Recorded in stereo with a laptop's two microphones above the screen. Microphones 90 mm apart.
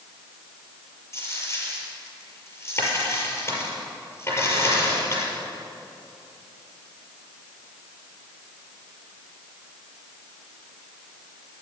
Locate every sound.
1.1 s a dropped coin: 30° left (ahead or behind), 5.5 m